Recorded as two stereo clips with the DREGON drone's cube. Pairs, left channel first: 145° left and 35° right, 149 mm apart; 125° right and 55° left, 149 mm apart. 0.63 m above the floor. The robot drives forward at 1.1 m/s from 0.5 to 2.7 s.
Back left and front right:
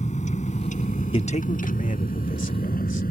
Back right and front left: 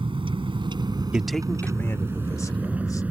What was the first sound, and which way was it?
A vehicle, 110° left.